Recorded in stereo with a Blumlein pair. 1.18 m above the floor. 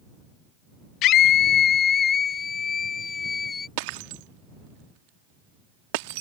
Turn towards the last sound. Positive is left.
turn(degrees=-45)